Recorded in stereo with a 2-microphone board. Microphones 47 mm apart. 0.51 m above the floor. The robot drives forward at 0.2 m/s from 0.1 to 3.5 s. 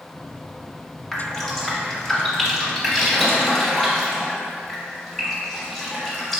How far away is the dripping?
About 0.7 m.